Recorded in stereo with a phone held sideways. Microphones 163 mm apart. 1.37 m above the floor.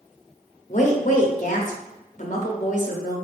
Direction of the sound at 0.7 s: 50° left (ahead or behind).